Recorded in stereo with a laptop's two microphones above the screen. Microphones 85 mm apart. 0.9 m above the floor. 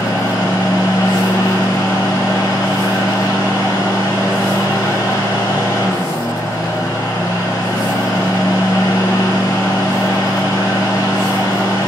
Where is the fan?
50° left (ahead or behind), 1.2 m.